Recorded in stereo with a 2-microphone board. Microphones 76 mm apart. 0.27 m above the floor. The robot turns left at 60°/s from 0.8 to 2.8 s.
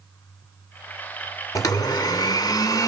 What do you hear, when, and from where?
1.6 s a blender: 125° left, 1.2 m; by 2.9 s 50° left, 1.2 m